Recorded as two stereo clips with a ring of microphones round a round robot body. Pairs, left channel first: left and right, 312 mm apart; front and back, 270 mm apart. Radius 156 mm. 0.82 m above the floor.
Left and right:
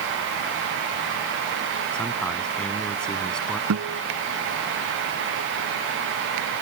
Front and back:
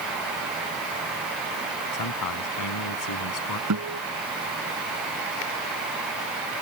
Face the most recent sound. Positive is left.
turn(degrees=-135)